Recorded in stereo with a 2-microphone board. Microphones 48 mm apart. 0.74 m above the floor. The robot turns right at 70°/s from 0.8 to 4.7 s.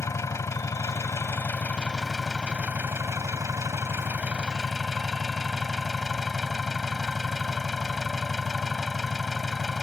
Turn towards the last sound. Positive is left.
turn(degrees=0)